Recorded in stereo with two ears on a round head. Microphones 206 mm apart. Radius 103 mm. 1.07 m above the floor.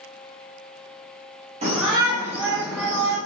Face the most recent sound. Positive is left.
turn(degrees=15)  # may be behind; listen again after turning